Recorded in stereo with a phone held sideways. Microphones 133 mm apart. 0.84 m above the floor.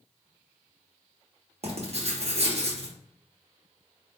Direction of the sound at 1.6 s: 50° right (ahead or behind).